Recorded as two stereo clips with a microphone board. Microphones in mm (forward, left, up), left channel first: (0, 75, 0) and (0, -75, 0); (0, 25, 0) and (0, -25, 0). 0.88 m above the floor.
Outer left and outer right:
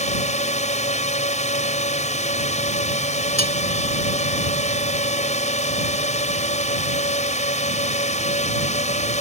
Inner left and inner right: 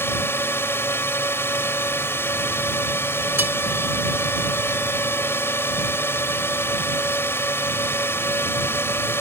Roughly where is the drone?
Left.